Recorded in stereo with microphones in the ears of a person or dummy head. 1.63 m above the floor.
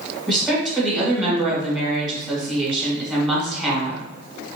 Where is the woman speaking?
Centre (ahead or behind), 1.9 m.